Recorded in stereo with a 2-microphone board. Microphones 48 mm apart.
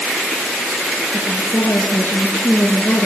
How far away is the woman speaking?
About 7.5 m.